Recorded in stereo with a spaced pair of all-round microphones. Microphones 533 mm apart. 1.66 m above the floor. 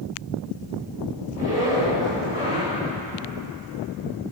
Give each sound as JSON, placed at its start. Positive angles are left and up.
{"t": 1.3, "sound": "a zipper", "side_deg": 90, "distance_m": 8.5}